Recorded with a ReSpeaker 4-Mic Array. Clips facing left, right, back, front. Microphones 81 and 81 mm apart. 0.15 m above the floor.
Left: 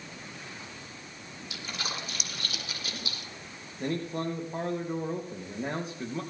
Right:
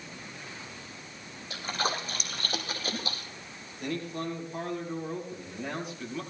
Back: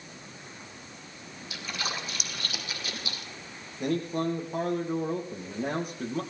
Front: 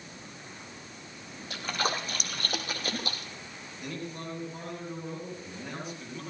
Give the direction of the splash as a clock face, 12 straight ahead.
1 o'clock.